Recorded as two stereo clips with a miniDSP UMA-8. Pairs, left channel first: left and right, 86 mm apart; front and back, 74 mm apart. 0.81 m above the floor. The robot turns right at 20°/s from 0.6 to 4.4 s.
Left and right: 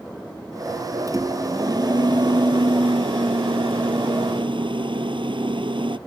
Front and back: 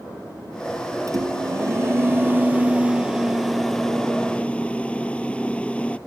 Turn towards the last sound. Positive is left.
turn(degrees=-75)